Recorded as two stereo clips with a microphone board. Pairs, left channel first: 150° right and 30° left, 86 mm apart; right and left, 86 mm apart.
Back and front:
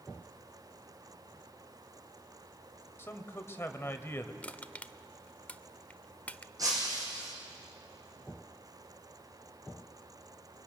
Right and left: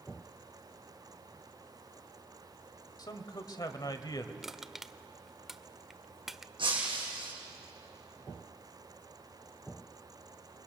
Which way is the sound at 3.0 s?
100° right.